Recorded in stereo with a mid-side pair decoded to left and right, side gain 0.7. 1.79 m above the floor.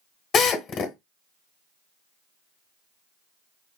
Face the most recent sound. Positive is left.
turn(degrees=40)